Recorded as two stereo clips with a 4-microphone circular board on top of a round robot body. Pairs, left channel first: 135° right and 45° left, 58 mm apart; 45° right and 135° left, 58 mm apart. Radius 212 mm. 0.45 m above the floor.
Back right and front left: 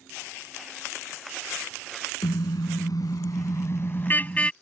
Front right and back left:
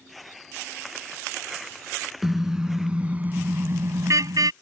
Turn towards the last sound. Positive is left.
turn(degrees=155)